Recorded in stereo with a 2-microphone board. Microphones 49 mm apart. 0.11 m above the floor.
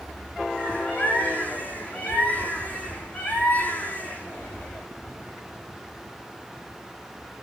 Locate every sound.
0.6 s a bird: 30° left (ahead or behind), 3 m